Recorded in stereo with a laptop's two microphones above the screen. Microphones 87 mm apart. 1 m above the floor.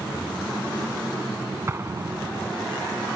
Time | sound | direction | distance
1.7 | an explosion | 30° right (ahead or behind) | ?